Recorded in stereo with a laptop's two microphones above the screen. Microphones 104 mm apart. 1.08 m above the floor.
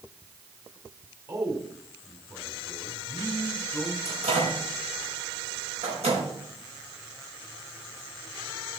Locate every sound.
1.3 s a man speaking: 30° right (ahead or behind), 3 m
4.0 s a microwave: 85° right, 4.5 m